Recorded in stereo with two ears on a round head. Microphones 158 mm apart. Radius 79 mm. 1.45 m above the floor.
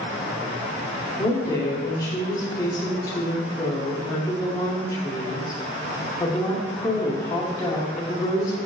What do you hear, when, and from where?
1.2 s a woman speaking: 20° left (ahead or behind), 0.7 m